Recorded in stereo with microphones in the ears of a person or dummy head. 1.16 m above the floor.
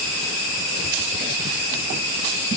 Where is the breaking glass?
I don't hear breaking glass.